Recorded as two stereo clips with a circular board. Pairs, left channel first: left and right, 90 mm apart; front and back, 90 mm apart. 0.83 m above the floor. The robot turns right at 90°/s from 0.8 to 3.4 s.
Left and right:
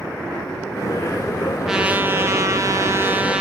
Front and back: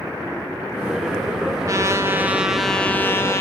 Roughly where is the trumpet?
Behind.